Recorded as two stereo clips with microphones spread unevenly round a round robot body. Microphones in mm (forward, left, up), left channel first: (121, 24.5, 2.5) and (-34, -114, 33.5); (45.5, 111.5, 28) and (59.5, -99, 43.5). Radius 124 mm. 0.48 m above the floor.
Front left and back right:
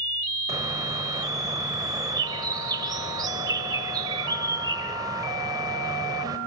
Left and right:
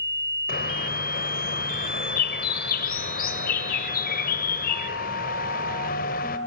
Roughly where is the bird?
Behind left.